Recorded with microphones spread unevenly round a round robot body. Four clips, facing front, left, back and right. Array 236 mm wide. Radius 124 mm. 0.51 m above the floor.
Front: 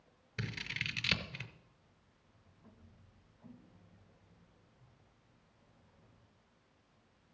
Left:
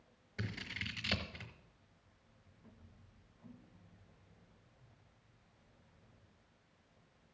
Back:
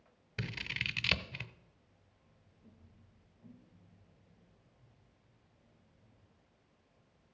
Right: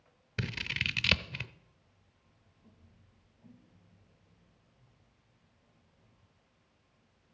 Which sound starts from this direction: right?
Scissors, at 0.4 s.